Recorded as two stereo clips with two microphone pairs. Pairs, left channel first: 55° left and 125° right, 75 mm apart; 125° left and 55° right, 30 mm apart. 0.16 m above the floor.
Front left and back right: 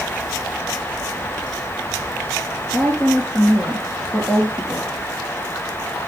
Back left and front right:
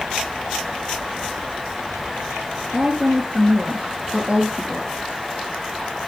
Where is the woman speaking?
15° right, 3 m.